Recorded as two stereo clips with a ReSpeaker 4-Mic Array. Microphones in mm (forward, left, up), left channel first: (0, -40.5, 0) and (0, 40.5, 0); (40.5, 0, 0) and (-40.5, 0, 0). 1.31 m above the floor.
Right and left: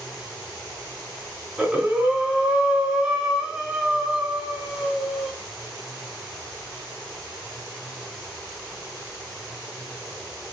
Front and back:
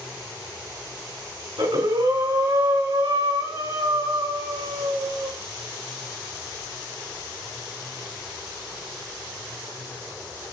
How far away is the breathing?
About 3 m.